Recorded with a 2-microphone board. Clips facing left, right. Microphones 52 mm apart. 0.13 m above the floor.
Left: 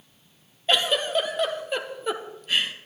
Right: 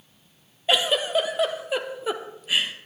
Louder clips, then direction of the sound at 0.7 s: Right 1 dB; 10° right (ahead or behind).